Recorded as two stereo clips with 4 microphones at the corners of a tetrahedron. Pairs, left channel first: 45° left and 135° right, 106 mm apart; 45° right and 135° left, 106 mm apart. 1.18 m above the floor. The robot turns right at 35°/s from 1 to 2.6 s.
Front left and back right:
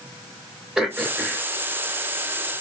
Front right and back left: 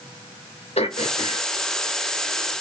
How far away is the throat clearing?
About 2.5 m.